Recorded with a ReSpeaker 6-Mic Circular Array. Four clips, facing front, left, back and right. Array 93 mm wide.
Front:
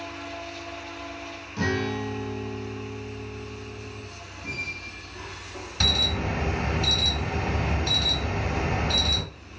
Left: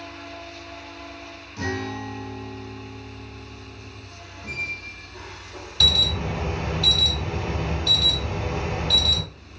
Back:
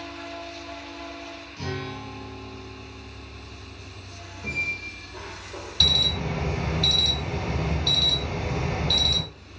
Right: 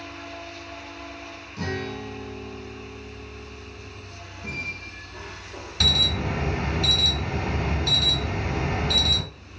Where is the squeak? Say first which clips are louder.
Even, back 4 dB; 155° right, 1.5 m.